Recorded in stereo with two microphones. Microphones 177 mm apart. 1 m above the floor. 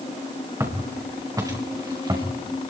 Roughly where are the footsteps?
Centre.